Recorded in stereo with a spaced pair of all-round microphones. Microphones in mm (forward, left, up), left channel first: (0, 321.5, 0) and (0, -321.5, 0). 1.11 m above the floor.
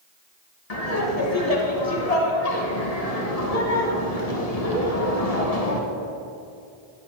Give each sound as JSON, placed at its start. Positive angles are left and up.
{"t": 0.7, "sound": "laughter", "side_deg": 70, "distance_m": 1.2}